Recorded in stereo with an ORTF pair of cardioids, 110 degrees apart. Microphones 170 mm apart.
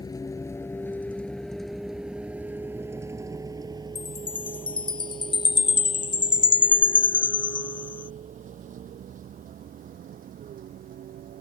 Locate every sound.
0.0 s a vehicle: 25° left; by 11.4 s 60° right
4.0 s a chime: 30° left